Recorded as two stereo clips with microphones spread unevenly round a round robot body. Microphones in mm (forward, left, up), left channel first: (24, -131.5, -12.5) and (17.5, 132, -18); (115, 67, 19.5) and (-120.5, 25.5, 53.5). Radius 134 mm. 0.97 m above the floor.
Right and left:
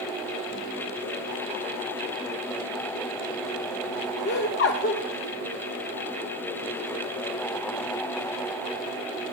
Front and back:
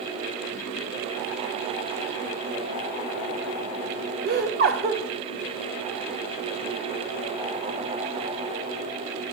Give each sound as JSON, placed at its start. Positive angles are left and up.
{"t": 4.2, "sound": "laughter", "azimuth_deg": -125, "distance_m": 0.8}